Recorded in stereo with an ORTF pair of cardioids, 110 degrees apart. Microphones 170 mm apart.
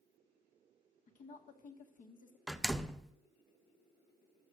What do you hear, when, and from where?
1.1 s a woman speaking: 50° left, 1.8 m
2.5 s a door slam: straight ahead, 0.5 m